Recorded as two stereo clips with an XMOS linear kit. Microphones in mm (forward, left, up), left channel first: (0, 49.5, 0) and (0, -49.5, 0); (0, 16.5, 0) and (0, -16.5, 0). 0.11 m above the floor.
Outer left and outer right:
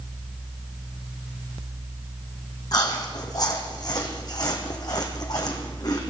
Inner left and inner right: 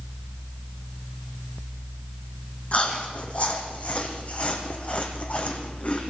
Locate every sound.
2.7 s chewing: 45° left (ahead or behind), 2 m